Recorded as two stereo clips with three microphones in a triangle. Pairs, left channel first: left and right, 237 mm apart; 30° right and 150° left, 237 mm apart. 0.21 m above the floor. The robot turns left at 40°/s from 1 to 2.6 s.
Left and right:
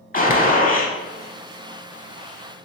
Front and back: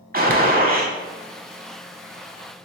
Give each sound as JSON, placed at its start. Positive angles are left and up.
{"t": 0.1, "sound": "a gunshot", "azimuth_deg": 125, "distance_m": 0.7}